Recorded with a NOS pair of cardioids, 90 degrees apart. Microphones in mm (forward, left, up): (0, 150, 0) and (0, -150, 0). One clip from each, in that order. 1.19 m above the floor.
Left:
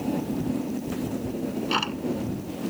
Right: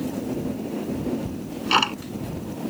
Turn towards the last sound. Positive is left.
turn(degrees=-45)